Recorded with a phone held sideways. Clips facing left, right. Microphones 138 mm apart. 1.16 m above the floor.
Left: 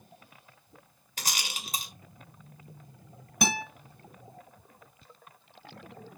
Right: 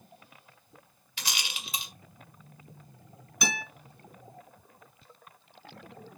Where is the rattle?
45° left (ahead or behind), 1.7 m.